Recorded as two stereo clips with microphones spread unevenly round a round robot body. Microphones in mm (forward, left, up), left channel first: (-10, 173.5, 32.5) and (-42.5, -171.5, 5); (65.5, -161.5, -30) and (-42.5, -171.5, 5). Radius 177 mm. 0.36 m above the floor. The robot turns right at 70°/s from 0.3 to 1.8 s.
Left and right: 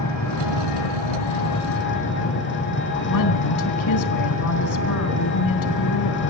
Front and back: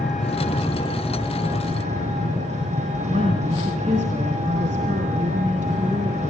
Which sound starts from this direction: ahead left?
An engine running, at 0.0 s.